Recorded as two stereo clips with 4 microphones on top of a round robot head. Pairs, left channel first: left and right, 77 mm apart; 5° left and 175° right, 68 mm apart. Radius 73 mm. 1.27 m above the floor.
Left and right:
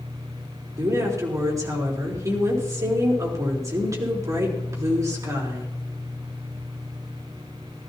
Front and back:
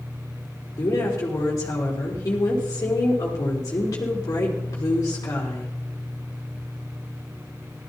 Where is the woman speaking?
45° right, 4 m.